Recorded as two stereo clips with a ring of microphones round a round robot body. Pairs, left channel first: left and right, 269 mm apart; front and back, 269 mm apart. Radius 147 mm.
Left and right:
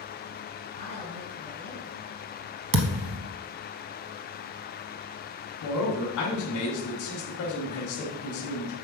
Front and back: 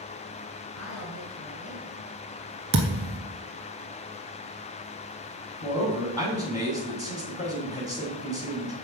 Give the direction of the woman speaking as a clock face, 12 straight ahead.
11 o'clock.